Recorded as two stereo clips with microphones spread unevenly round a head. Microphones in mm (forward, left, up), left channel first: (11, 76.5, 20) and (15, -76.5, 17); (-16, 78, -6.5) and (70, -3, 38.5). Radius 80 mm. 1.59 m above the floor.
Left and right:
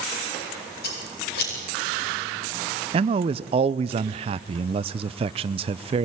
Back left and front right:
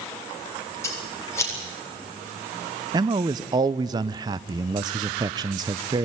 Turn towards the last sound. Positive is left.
turn(degrees=-45)